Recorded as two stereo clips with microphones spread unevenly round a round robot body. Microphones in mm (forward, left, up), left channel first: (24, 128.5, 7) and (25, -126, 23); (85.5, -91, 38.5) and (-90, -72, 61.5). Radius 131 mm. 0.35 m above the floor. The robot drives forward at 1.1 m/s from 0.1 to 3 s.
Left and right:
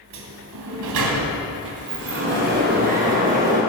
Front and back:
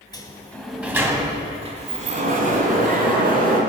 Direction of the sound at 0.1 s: 70° right.